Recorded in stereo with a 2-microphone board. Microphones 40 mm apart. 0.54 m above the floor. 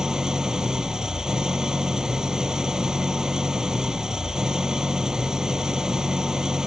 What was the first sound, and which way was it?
An engine running, 15° right (ahead or behind).